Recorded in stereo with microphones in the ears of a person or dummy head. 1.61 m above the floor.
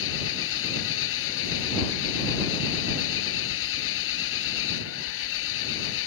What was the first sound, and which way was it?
An engine running, 75° left (ahead or behind).